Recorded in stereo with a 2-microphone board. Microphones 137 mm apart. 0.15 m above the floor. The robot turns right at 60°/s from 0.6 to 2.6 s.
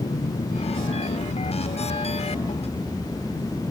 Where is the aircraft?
40° left; by 3.7 s 160° left.